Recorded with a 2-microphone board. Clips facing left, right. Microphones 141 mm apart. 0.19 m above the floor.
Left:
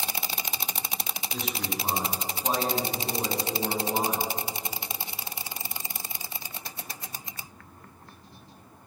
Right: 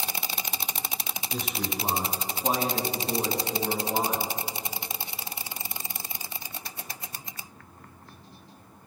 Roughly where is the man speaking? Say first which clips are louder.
Right 1 dB; right.